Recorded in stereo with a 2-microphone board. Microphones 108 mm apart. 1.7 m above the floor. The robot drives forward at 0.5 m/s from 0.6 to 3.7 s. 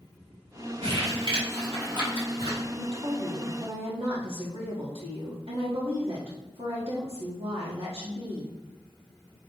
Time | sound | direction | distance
0.8 | crumpling | 60° right (ahead or behind) | 3 m
2.8 | a woman speaking | 65° right (ahead or behind) | 2 m